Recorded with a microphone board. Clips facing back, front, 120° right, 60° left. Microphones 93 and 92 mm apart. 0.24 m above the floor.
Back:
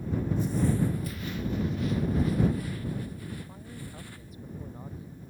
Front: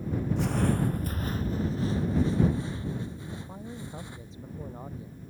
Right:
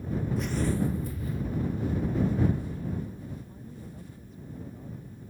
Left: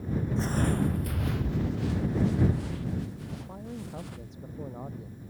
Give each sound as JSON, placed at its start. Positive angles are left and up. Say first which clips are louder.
{"t": 0.4, "sound": "footsteps", "louder": "even, left 1 dB", "azimuth_deg": -5}
{"t": 3.3, "sound": "a man speaking", "louder": "front 2 dB, left 4 dB", "azimuth_deg": 65}